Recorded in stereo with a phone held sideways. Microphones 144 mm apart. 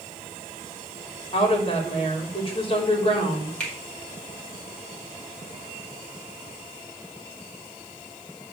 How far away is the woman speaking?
About 3.5 m.